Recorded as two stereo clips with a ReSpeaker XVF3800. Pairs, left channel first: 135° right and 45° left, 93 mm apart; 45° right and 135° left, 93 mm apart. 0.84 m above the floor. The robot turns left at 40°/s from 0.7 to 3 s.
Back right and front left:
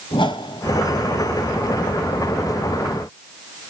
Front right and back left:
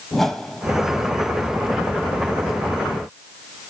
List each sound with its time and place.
0.1 s a whoosh: 130° right, 1.2 m